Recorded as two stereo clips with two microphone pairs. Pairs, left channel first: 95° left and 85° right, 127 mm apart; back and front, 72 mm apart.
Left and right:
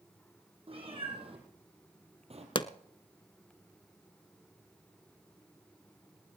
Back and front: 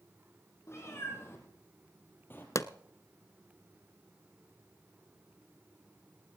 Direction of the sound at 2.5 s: 140° left.